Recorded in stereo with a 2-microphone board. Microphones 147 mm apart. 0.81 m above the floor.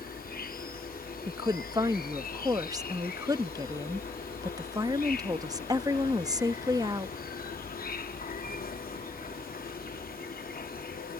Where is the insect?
70° left (ahead or behind).